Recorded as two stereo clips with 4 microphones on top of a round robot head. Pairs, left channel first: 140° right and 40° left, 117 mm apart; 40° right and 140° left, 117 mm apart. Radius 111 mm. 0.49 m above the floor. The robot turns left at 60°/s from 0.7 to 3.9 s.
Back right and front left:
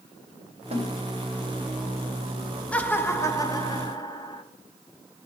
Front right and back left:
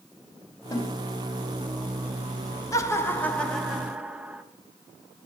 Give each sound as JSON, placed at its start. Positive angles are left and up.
{"t": 0.7, "sound": "a snare drum", "azimuth_deg": 20, "distance_m": 2.5}
{"t": 2.7, "sound": "laughter", "azimuth_deg": -75, "distance_m": 1.5}